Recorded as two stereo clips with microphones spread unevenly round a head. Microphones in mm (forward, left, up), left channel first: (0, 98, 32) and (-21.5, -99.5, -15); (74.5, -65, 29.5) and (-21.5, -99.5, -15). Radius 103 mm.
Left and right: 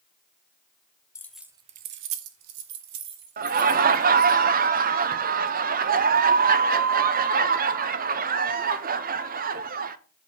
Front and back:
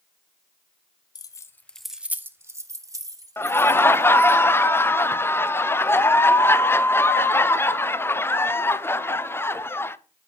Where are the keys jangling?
20° left, 0.8 m; by 4.4 s 105° right, 2.5 m.